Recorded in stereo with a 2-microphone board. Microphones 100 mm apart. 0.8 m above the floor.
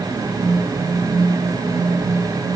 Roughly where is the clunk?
No clunk in this recording.